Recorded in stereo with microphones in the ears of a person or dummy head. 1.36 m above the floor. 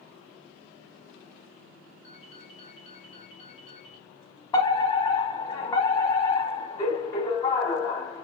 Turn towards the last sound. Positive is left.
turn(degrees=15)  # may be behind; listen again after turning